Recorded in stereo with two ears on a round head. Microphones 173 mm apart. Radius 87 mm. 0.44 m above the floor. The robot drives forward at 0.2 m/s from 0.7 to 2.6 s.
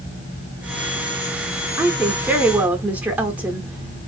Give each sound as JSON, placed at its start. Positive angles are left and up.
{"t": 1.8, "sound": "a woman speaking", "side_deg": -10, "distance_m": 0.8}